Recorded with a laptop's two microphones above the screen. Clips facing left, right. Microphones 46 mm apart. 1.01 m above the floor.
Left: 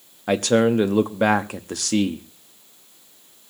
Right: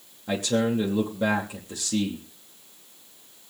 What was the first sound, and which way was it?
A man speaking, 60° left (ahead or behind).